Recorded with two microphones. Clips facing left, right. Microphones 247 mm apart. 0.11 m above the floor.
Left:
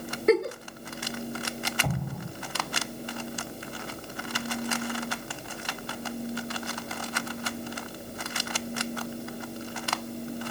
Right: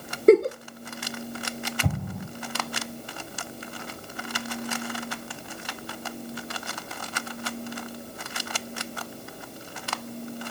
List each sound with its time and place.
0.3 s a giggle: 40° right (ahead or behind), 0.6 m
1.8 s an explosion: 25° right (ahead or behind), 4 m